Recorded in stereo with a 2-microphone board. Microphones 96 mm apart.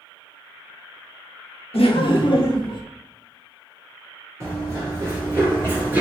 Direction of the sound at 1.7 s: 75° left (ahead or behind).